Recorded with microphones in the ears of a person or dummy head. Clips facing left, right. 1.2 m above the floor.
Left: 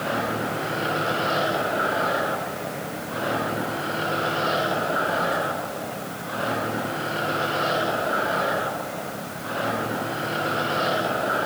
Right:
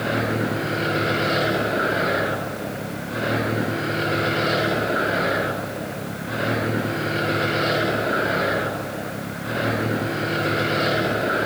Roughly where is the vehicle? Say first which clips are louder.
Right 3 dB; right.